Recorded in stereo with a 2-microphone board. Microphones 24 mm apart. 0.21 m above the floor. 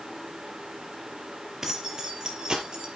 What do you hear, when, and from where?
1.6 s keys jangling: 25° right (ahead or behind), 3.5 m; by 2.9 s 40° right (ahead or behind), 3.5 m